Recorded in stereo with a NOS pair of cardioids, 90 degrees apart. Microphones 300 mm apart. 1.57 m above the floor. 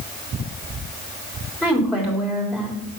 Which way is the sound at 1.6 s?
5° left.